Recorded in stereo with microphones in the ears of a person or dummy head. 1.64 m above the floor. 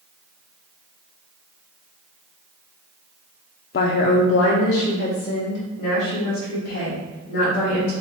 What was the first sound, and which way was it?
A woman speaking, 55° left (ahead or behind).